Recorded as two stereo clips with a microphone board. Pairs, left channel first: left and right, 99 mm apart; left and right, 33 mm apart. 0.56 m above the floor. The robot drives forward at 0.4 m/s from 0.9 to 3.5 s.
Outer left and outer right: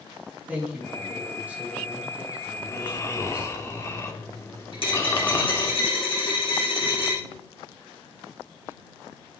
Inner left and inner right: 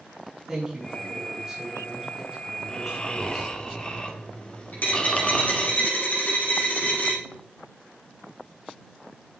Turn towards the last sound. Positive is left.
turn(degrees=60)  # may be behind; listen again after turning